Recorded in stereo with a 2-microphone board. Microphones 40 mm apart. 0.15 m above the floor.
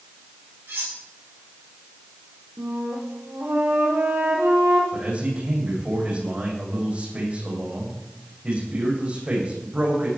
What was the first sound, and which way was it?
Cutlery clinking, 70° right (ahead or behind).